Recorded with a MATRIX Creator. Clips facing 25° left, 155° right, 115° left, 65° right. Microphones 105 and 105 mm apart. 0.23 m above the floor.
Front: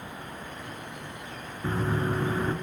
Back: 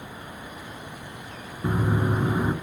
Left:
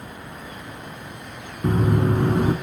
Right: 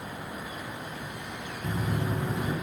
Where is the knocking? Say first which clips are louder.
Back 3 dB, left 11 dB; 130° left, 1.9 m.